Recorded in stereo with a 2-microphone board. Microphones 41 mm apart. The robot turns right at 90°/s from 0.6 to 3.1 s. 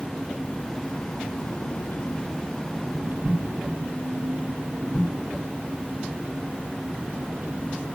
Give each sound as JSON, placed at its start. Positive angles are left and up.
{"t": 0.0, "sound": "an engine running", "azimuth_deg": 5}